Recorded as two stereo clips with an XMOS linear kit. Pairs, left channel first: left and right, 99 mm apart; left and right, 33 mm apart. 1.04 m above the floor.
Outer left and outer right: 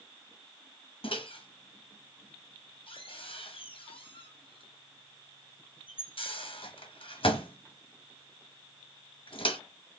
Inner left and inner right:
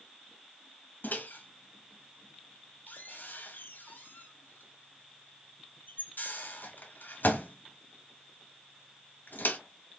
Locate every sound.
1.0 s a microwave: 65° left (ahead or behind), 1.1 m